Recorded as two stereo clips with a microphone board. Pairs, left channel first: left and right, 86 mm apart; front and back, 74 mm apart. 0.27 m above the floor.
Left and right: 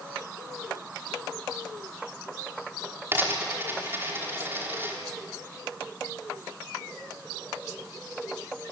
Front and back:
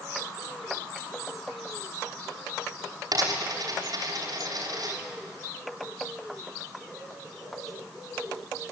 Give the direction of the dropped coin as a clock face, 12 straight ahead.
5 o'clock.